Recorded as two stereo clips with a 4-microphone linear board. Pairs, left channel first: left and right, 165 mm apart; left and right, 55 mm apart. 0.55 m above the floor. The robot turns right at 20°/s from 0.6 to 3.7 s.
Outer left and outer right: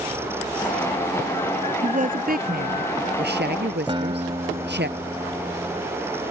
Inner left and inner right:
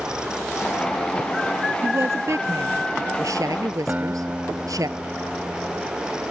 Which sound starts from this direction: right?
A guitar, at 3.9 s.